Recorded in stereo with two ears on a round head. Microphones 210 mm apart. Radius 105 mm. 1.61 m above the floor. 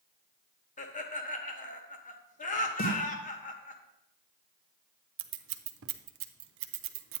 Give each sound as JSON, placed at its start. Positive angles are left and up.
{"t": 0.8, "sound": "laughter", "side_deg": 35, "distance_m": 1.1}
{"t": 2.8, "sound": "a snare drum", "side_deg": 40, "distance_m": 1.7}
{"t": 5.2, "sound": "scissors", "side_deg": -60, "distance_m": 0.5}